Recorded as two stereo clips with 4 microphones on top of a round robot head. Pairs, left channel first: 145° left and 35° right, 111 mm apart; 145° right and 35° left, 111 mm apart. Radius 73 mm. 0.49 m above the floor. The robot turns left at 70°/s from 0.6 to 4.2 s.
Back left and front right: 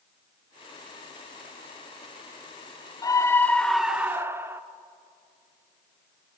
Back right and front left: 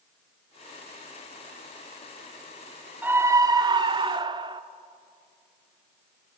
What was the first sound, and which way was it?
A scream, 105° left.